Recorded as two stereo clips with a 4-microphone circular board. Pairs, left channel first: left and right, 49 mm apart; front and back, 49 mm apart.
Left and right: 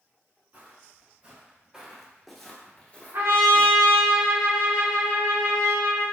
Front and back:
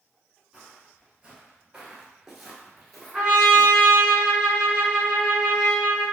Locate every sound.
0.5 s footsteps: 115° right, 2.0 m; by 4.1 s 75° left, 2 m
3.1 s a trumpet: 95° right, 1.8 m